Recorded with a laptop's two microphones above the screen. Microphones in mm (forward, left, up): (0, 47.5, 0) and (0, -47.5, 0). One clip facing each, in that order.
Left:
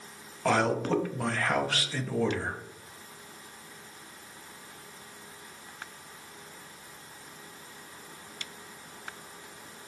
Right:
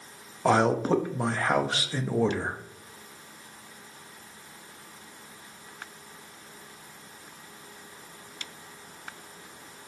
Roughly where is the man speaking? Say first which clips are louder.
Right 4 dB; right.